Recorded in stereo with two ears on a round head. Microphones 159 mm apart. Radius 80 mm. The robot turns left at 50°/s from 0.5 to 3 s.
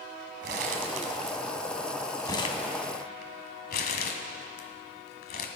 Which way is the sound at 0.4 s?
65° right (ahead or behind).